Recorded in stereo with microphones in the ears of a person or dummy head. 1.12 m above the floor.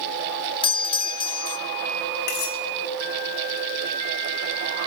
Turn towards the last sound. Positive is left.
turn(degrees=50)  # may be behind; listen again after turning